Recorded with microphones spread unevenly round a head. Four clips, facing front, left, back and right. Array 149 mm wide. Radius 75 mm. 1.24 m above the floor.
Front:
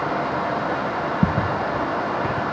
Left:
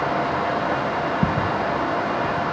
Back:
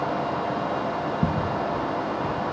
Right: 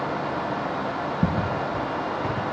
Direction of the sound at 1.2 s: 15° left.